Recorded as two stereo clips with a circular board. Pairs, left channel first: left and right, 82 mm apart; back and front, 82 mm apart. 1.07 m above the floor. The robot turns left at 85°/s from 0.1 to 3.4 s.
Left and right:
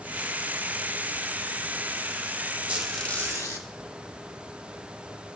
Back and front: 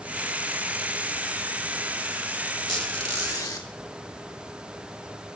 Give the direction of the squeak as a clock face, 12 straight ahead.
5 o'clock.